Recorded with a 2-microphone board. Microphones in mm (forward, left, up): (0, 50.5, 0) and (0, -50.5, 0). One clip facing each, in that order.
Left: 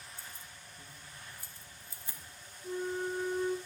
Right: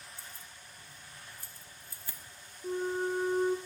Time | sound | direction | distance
0.2 | keys jangling | 30° left (ahead or behind) | 0.9 m
2.6 | a flute | 40° right (ahead or behind) | 1.0 m